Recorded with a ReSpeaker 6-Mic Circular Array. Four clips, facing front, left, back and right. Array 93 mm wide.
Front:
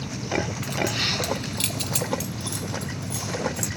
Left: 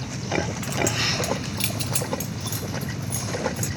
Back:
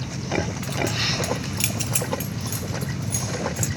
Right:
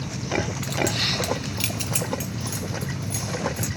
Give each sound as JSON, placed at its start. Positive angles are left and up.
{"t": 0.6, "sound": "keys jangling", "azimuth_deg": 80, "distance_m": 0.8}